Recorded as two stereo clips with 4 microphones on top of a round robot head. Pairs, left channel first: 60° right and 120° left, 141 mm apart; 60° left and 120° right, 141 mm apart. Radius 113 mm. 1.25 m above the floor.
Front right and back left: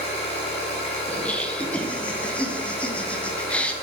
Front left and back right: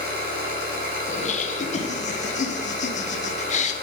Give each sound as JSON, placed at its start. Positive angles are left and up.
{"t": 0.0, "sound": "an engine running", "azimuth_deg": -105, "distance_m": 1.4}
{"t": 1.1, "sound": "laughter", "azimuth_deg": 20, "distance_m": 0.8}